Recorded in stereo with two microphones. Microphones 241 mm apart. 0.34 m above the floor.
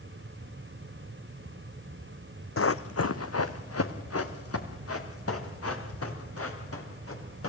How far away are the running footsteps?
About 0.9 m.